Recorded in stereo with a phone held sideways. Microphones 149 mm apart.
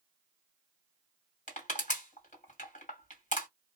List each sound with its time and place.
1.5 s crushing: 55° left (ahead or behind), 1.8 m